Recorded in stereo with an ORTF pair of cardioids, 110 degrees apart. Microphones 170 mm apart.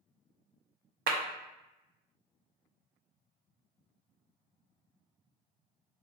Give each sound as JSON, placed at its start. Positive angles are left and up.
{"t": 1.1, "sound": "a clap", "azimuth_deg": -65, "distance_m": 0.6}